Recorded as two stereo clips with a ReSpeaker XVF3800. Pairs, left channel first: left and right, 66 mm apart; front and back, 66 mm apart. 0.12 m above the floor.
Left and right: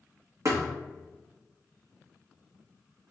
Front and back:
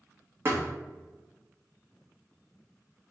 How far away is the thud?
About 1.2 m.